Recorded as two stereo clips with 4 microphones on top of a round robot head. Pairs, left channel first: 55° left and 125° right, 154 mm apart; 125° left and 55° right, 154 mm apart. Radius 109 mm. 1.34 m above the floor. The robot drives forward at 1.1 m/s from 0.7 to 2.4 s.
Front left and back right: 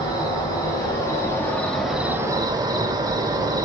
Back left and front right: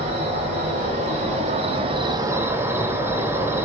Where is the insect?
10° right, 2.0 m; by 3.6 s 105° right, 0.9 m.